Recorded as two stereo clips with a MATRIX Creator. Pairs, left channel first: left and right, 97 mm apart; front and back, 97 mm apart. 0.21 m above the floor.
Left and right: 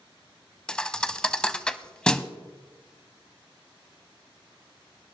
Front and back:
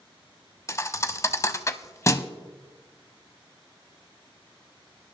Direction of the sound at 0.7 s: 20° left.